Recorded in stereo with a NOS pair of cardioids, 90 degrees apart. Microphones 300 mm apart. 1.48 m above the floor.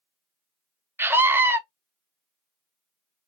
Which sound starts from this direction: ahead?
A scream, at 1.0 s.